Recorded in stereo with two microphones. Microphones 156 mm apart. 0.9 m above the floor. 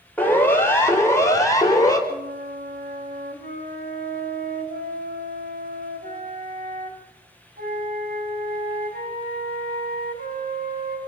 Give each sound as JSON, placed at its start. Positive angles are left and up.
{"t": 0.2, "sound": "a siren", "side_deg": 10, "distance_m": 4.5}
{"t": 2.1, "sound": "a flute", "side_deg": -85, "distance_m": 3.5}